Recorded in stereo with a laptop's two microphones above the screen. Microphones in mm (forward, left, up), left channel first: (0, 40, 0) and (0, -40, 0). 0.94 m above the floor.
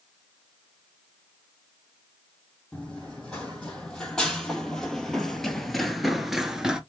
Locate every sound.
2.7 s running footsteps: 10° left (ahead or behind), 2.5 m; by 6.8 s 10° right (ahead or behind), 0.9 m